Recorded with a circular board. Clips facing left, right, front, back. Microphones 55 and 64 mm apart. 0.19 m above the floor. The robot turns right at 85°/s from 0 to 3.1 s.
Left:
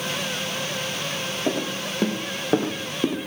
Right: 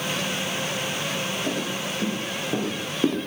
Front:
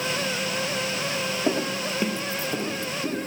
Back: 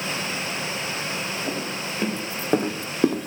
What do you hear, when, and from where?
1.5 s footsteps: 40° left, 3.5 m; by 3.3 s 175° right, 2 m